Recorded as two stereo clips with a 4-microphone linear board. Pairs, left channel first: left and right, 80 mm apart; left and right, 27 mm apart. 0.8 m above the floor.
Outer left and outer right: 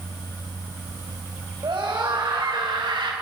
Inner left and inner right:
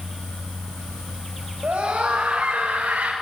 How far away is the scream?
About 3.5 m.